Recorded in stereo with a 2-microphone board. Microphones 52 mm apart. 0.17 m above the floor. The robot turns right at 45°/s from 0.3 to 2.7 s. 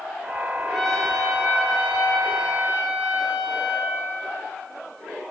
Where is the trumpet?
165° left, 1.0 m; by 4.0 s 105° right, 1.0 m.